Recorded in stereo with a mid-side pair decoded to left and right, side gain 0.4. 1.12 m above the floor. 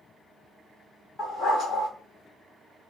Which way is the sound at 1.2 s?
65° left.